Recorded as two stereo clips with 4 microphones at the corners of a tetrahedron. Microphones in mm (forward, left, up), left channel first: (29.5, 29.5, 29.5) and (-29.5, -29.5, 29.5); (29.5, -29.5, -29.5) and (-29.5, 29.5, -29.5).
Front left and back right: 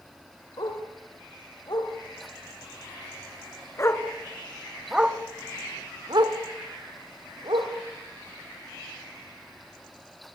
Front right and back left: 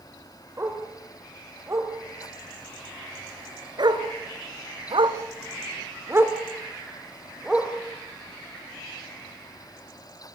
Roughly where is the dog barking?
Left.